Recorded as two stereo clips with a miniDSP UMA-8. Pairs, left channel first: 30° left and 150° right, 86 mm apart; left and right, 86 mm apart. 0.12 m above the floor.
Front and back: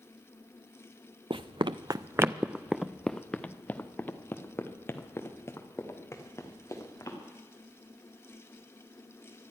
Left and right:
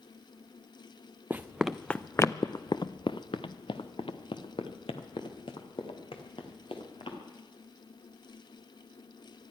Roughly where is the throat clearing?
No throat clearing in this recording.